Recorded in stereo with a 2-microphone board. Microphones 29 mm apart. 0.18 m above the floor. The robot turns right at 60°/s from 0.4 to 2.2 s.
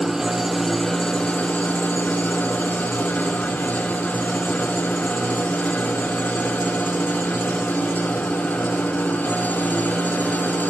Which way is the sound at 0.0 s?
15° right.